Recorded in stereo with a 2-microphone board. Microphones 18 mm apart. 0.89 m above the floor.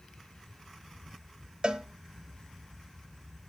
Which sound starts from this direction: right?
A cowbell, at 1.6 s.